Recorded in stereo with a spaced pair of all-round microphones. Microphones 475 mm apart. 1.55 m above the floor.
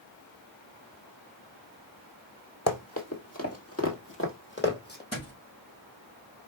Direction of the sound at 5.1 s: 30° left (ahead or behind).